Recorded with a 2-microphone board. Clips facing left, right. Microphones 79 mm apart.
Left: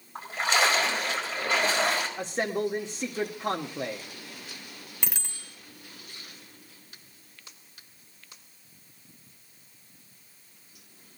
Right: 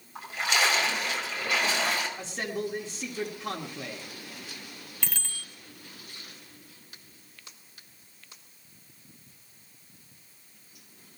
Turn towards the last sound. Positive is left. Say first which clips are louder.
# right 1 dB
turn(degrees=20)  # may be behind; listen again after turning